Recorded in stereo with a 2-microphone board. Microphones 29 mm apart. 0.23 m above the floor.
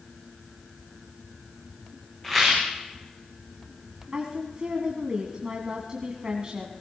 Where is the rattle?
5° left (ahead or behind), 8.5 m.